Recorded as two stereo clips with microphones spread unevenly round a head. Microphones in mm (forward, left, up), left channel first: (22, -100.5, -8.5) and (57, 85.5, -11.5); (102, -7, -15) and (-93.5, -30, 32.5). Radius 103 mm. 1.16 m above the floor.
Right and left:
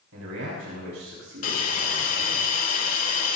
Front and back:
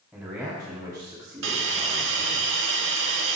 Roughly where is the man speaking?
Left.